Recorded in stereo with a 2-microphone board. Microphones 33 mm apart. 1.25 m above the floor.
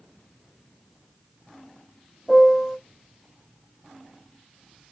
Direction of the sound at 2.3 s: 15° right (ahead or behind).